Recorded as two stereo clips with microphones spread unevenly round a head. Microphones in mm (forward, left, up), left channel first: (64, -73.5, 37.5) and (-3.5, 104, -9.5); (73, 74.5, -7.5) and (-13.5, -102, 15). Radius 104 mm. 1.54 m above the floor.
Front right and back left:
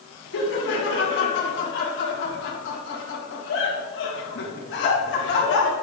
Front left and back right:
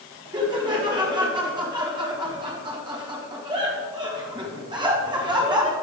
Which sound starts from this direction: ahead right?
Laughter, at 0.3 s.